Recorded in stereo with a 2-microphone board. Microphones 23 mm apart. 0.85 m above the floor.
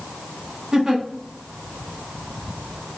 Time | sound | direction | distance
0.7 | a giggle | 30° right (ahead or behind) | 0.7 m